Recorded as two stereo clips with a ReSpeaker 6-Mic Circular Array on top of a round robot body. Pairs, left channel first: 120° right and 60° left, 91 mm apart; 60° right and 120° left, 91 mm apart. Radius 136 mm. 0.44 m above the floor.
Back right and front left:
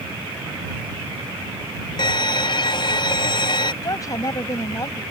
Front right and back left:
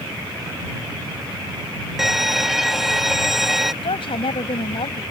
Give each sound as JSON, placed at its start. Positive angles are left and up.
{"t": 2.0, "sound": "a violin", "azimuth_deg": -155}
{"t": 3.8, "sound": "a woman speaking", "azimuth_deg": -70}